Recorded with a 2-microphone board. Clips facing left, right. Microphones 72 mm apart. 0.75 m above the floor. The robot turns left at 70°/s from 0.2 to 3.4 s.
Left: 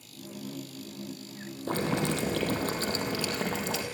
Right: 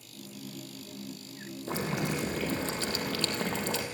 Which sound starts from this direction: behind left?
Boiling, at 1.7 s.